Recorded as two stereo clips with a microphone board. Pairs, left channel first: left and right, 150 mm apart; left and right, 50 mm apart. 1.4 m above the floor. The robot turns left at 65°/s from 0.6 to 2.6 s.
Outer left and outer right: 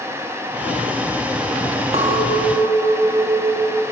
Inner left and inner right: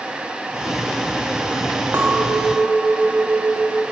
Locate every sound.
1.9 s a clink: 45° right, 1.4 m; by 3.8 s 90° right, 1.4 m